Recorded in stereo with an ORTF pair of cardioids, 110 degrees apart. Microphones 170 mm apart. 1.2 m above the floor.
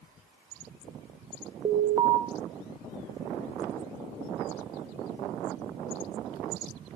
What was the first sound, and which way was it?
An alarm, 25° right.